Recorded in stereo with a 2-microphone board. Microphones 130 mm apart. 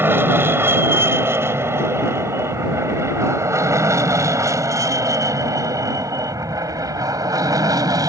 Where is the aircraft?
15° right (ahead or behind); by 8.1 s 30° right (ahead or behind).